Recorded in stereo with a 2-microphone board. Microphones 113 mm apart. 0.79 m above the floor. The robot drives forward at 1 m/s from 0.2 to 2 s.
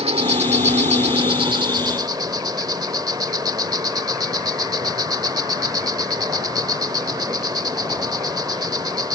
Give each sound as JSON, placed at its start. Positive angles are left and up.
{"t": 0.0, "sound": "an insect", "side_deg": -65}